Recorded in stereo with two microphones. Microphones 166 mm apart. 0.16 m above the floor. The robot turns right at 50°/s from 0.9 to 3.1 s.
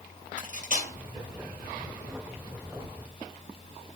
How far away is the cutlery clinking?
About 2.5 m.